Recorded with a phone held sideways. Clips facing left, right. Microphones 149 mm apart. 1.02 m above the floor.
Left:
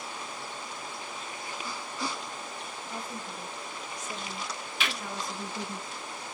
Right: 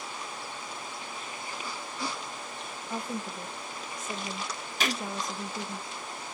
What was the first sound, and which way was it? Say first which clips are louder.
A woman speaking: right 6 dB; 70° right (ahead or behind).